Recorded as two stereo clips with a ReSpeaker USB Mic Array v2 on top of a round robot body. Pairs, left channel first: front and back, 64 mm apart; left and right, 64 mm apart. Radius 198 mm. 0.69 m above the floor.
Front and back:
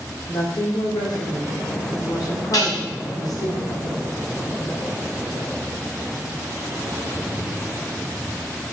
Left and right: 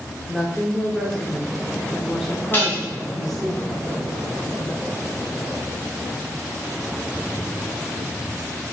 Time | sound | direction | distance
0.3 | a woman speaking | straight ahead | 3 m
2.5 | dishes clattering | 30° left | 3 m